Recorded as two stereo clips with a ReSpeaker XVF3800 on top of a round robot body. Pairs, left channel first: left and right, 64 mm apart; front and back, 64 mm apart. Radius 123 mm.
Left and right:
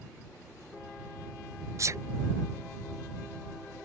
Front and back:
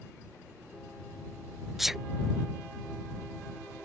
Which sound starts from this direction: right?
A sneeze, at 1.8 s.